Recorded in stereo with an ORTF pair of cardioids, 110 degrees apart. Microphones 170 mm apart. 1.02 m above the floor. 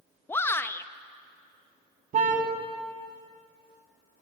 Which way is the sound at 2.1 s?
50° right.